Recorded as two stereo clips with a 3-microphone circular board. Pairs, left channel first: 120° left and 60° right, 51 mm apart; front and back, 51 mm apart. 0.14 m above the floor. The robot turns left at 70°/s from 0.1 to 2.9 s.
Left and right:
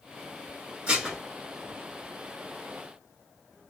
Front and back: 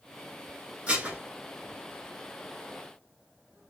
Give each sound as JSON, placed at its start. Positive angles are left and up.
{"t": 0.9, "sound": "dishes clattering", "azimuth_deg": -120, "distance_m": 1.3}